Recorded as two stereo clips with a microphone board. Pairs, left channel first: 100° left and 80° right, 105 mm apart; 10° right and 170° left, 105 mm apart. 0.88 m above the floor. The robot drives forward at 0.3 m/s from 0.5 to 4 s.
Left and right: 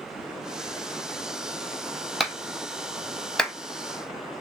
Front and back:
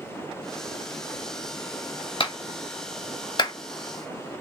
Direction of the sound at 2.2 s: 10° left.